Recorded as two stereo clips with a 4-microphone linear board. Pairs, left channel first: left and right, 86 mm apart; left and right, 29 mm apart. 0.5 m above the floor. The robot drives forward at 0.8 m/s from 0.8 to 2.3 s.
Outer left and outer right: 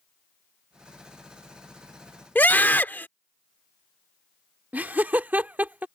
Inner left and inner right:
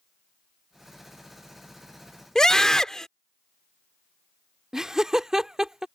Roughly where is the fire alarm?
I don't hear a fire alarm.